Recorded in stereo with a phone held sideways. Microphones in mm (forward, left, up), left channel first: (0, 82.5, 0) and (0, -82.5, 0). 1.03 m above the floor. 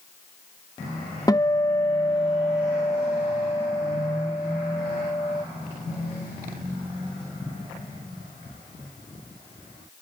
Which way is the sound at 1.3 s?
20° left (ahead or behind).